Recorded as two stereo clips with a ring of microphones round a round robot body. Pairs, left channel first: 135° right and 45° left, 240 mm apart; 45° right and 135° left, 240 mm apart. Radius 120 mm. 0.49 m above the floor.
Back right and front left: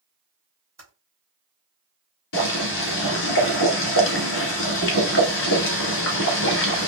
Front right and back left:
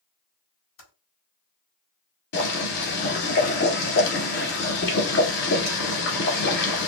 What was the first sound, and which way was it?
Typing on a keyboard, 35° right.